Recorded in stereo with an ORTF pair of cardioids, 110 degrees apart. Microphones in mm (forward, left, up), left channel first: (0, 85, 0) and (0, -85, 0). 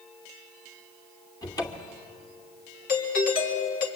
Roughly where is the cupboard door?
Ahead.